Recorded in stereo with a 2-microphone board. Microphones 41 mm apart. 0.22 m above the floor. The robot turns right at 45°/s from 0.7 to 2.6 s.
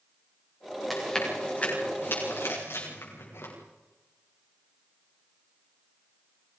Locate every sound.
0.9 s chewing: centre (ahead or behind), 9 m; by 3.5 s 80° left, 9 m